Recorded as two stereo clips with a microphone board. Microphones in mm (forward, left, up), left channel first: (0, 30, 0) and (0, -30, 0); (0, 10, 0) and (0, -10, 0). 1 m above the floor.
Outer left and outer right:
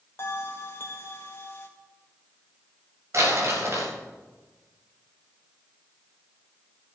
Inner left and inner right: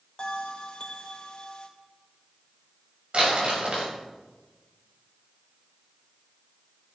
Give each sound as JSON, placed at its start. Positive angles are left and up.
{"t": 0.2, "sound": "a bell", "side_deg": 45, "distance_m": 2.0}
{"t": 3.1, "sound": "crumpling", "side_deg": -55, "distance_m": 7.0}